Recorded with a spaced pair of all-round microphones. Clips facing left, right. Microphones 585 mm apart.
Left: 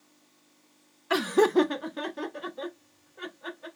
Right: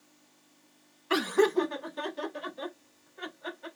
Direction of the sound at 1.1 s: 15° left (ahead or behind).